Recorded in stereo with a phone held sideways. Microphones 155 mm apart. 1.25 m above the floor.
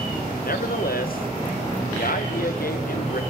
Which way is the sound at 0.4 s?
70° left (ahead or behind).